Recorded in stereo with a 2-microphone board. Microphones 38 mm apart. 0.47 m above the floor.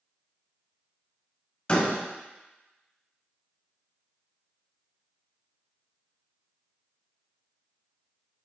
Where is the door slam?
25° left (ahead or behind), 2 m.